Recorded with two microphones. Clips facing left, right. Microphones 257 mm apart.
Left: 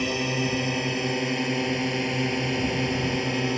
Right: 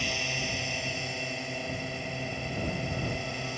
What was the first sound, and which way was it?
A drone, 65° left (ahead or behind).